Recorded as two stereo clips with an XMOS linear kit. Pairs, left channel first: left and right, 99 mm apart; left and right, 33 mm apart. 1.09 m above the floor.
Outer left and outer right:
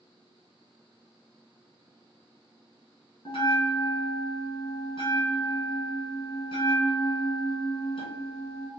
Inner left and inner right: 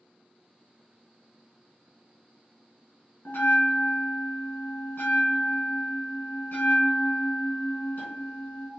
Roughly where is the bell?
Left.